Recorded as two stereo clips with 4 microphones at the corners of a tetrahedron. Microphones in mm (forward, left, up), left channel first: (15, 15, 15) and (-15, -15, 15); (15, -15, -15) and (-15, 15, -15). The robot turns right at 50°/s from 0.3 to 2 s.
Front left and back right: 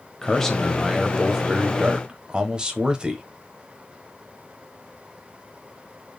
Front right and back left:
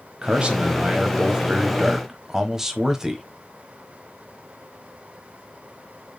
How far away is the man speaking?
About 0.9 m.